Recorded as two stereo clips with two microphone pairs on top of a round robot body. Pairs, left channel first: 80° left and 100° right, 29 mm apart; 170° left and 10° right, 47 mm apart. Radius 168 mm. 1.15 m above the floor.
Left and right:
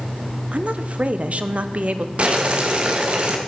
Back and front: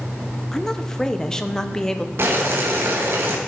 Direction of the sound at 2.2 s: 50° right.